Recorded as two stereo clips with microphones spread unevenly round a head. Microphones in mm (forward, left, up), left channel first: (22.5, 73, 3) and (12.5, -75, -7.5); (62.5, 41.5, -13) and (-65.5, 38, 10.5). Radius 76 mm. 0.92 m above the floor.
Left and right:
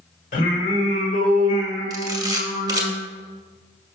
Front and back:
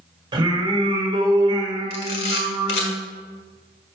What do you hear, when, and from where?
0.3 s singing: 130° left, 1.5 m
1.9 s a camera shutter: 25° right, 1.5 m